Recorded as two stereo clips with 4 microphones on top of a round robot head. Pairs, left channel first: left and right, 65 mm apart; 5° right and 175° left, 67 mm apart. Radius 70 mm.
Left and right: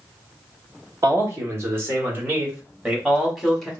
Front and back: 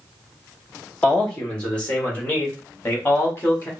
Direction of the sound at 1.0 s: 75° right.